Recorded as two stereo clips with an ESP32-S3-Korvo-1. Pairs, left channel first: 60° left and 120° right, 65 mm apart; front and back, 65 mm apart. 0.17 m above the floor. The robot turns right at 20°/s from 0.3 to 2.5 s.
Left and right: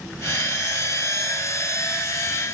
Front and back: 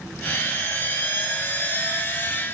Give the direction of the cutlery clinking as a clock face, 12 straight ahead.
I don't hear cutlery clinking.